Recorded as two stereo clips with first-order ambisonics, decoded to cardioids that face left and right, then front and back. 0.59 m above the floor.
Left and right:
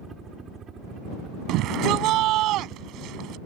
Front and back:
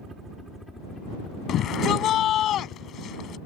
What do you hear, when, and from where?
0.0 s a helicopter: 135° right; by 3.5 s 35° right
1.5 s a shout: 50° right